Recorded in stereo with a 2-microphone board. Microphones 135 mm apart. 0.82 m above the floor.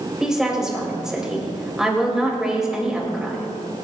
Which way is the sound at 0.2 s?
5° right (ahead or behind).